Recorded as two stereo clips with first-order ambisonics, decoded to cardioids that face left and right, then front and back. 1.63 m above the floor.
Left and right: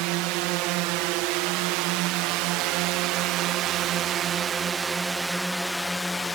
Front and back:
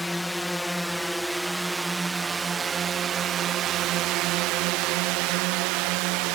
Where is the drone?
85° right; by 6.3 s 170° left.